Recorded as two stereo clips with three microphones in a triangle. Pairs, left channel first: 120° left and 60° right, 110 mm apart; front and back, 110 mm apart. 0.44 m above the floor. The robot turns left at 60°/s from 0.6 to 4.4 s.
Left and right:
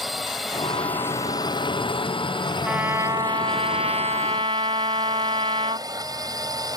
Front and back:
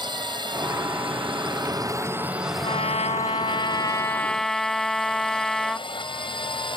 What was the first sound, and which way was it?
A drone, 150° right.